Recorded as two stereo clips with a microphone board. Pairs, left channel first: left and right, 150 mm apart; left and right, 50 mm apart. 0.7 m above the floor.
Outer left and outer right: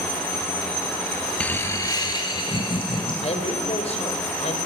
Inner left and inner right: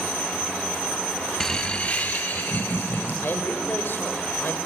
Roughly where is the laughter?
Centre.